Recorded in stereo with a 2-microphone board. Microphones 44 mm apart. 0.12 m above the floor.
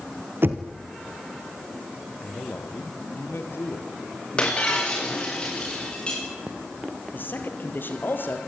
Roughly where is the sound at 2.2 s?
Left.